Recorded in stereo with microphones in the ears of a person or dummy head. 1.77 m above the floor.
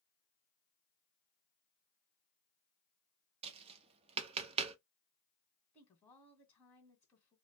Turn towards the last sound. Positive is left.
turn(degrees=10)  # may be behind; listen again after turning